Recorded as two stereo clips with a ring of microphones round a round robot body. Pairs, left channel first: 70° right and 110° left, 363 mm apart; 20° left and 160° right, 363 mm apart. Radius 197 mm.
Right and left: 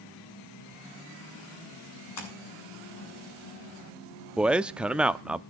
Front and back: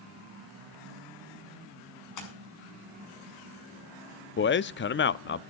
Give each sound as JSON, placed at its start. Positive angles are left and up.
{"t": 2.2, "sound": "a splash", "azimuth_deg": -20, "distance_m": 7.0}
{"t": 4.4, "sound": "a man speaking", "azimuth_deg": 30, "distance_m": 0.7}